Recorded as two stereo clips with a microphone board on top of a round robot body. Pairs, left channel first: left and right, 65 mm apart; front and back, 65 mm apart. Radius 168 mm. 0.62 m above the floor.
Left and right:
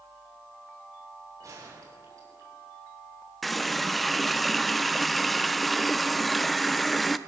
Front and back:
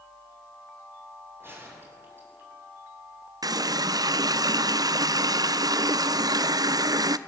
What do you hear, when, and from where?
1.4 s a gunshot: 125° right, 7 m
3.4 s a running tap: straight behind, 0.9 m